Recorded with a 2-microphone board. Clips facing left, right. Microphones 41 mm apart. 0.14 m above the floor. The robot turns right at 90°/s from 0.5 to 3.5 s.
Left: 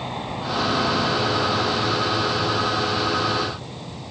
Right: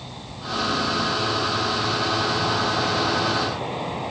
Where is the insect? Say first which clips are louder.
Left 8 dB; 40° left; by 4.1 s 50° right.